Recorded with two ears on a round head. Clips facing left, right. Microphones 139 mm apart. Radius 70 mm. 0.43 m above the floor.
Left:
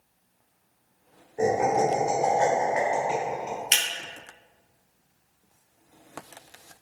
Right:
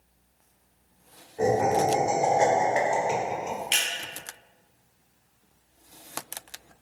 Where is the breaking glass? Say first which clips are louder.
Left 1 dB; 65° left (ahead or behind), 1.1 m.